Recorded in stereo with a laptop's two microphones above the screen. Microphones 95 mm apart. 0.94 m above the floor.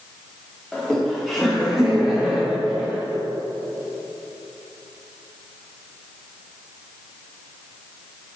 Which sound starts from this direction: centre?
Laughter, at 0.7 s.